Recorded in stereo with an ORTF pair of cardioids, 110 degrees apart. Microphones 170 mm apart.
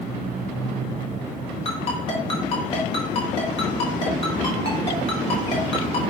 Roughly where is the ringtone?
Ahead left.